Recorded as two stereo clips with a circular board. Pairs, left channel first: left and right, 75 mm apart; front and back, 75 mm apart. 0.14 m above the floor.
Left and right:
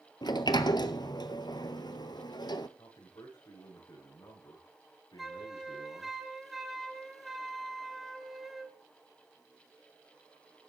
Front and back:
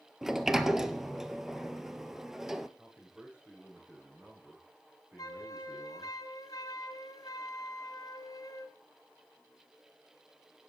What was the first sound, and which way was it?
A sliding door, 95° left.